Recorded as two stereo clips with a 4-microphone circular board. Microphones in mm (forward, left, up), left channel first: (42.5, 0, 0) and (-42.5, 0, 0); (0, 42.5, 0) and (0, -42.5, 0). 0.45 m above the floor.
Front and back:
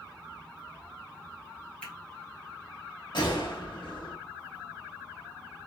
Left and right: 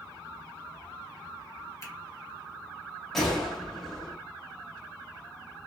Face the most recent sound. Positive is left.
turn(degrees=5)